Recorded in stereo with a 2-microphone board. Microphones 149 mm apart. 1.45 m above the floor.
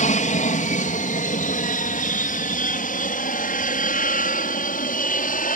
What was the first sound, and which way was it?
An aircraft, 55° left (ahead or behind).